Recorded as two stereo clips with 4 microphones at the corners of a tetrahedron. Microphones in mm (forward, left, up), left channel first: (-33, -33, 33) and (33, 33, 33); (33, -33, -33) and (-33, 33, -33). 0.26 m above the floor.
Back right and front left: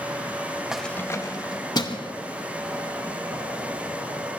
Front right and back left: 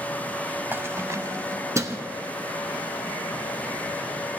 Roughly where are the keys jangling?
Behind left.